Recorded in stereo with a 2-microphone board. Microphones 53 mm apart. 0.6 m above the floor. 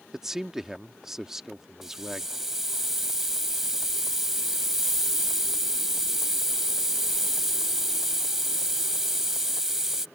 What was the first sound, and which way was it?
A man speaking, 10° right (ahead or behind).